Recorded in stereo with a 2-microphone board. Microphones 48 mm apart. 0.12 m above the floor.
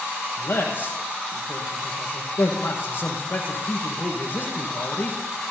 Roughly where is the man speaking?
Left.